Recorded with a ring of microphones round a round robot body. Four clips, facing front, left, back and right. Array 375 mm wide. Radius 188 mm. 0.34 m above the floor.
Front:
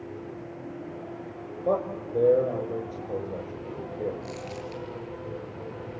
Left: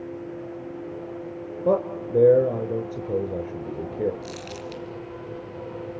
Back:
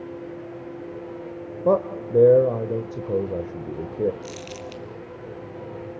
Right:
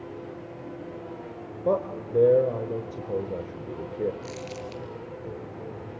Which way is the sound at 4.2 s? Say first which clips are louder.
Left 1 dB, back 1 dB; 155° left.